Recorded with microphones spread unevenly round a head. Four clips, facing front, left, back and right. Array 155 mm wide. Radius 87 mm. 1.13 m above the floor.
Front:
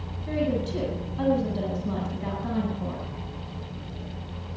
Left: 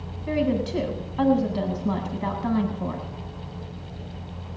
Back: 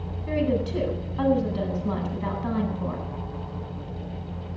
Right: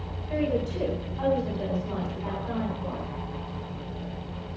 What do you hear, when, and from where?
0.3 s a woman speaking: 95° left, 8 m